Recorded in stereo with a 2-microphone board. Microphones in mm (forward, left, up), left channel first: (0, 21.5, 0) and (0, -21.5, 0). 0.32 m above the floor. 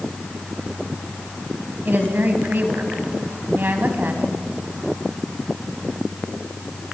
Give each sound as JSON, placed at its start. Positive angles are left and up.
{"t": 1.9, "sound": "a woman speaking", "side_deg": -50, "distance_m": 2.5}